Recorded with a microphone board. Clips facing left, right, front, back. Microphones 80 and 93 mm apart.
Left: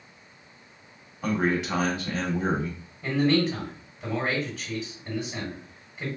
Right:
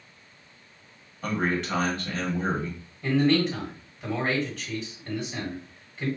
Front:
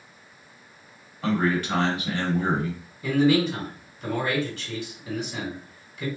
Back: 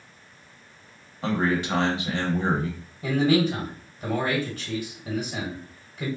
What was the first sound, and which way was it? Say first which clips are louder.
A man speaking: left 2 dB, front 1 dB; 165° left.